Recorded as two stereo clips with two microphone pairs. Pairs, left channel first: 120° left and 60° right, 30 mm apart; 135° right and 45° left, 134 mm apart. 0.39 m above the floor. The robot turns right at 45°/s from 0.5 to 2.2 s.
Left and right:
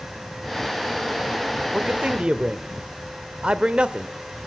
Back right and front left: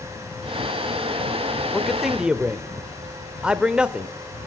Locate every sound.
1.7 s a man speaking: 55° right, 0.9 m; by 4.1 s 35° right, 0.9 m